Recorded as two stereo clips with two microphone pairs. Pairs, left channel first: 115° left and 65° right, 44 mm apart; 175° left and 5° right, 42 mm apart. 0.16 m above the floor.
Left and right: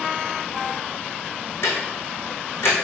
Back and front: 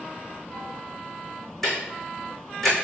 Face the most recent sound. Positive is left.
turn(degrees=85)